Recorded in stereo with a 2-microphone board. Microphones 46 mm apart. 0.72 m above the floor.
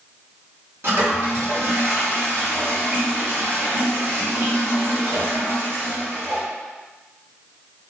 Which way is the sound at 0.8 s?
55° right (ahead or behind).